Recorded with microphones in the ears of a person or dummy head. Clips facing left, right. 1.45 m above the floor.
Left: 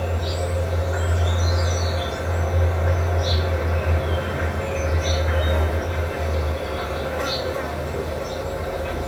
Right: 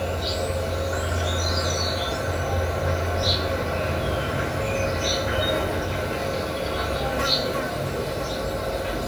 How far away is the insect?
About 3.5 m.